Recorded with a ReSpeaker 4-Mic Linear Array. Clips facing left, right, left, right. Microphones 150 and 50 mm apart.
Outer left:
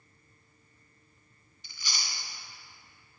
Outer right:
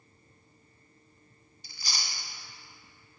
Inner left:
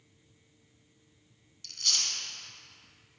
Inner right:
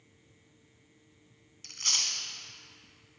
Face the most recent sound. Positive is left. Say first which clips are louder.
# outer right 1 dB, even
turn(degrees=-40)  # may be behind; listen again after turning